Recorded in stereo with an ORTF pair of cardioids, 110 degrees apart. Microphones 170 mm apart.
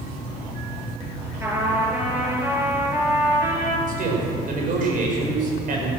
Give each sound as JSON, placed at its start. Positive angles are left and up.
{"t": 1.4, "sound": "a trumpet", "azimuth_deg": -15, "distance_m": 5.0}
{"t": 3.9, "sound": "a man speaking", "azimuth_deg": -55, "distance_m": 5.5}